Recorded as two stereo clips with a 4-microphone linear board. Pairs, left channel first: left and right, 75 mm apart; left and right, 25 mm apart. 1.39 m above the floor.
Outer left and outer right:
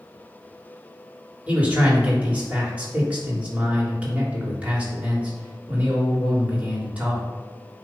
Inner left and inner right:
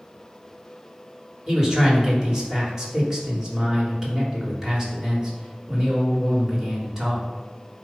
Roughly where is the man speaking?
Centre.